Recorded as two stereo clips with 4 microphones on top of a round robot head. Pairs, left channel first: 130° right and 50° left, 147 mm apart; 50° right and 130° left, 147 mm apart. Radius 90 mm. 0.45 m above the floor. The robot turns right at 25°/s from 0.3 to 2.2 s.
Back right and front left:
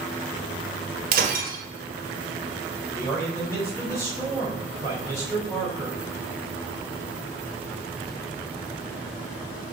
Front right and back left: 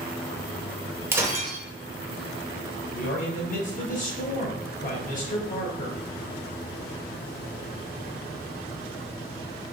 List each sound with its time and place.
1.1 s breaking glass: 55° left, 1.2 m; by 1.6 s 70° left, 1.2 m
2.9 s a man speaking: 65° right, 2.5 m